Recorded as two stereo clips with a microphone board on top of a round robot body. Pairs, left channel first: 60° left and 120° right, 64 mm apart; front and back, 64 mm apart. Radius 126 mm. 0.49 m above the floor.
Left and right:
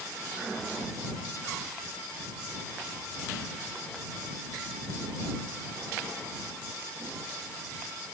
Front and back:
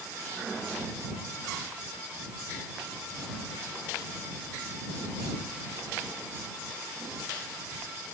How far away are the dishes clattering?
I don't hear dishes clattering.